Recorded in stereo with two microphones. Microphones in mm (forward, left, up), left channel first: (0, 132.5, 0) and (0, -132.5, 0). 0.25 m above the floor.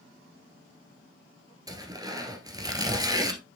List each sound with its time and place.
1.7 s tearing paper: 15° right (ahead or behind), 1.4 m